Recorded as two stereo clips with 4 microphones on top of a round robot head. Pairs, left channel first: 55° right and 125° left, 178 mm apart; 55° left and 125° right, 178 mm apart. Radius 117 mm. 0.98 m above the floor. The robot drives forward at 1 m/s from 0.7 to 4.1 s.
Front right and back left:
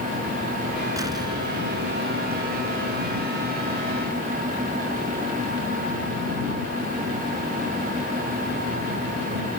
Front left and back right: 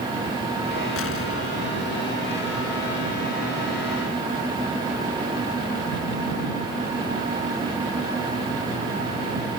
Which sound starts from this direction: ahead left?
An explosion, at 1.0 s.